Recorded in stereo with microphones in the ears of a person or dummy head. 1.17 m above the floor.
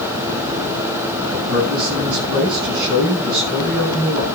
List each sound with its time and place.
1.2 s a man speaking: 60° right (ahead or behind), 7.5 m